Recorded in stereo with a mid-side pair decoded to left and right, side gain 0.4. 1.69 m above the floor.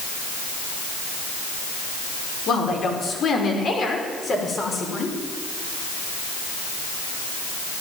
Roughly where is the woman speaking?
Ahead left.